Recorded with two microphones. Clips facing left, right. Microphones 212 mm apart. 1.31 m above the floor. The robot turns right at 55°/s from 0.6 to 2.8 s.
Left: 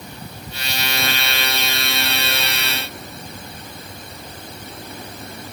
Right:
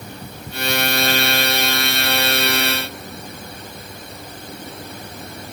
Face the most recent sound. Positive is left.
No sound to turn to.